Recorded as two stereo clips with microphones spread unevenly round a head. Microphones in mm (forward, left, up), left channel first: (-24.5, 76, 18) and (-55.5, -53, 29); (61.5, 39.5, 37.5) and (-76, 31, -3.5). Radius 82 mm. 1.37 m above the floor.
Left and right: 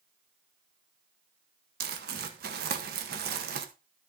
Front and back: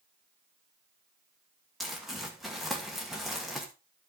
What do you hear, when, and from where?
1.8 s crumpling: 90° right, 1.1 m